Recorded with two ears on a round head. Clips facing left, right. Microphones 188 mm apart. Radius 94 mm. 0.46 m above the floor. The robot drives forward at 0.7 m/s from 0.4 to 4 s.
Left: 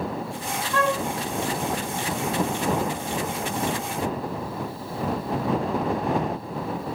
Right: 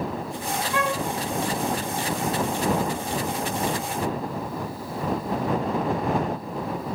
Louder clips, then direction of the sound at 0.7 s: Left 4 dB; 10° right (ahead or behind).